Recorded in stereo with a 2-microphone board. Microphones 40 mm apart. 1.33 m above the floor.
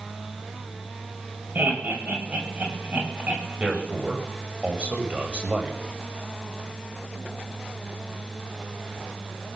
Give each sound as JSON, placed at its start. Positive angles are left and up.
{"t": 1.6, "sound": "laughter", "side_deg": -50, "distance_m": 6.5}
{"t": 3.6, "sound": "a man speaking", "side_deg": -30, "distance_m": 5.5}